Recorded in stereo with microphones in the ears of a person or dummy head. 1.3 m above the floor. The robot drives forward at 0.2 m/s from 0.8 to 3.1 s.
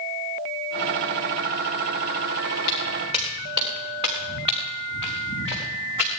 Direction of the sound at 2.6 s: 25° right (ahead or behind).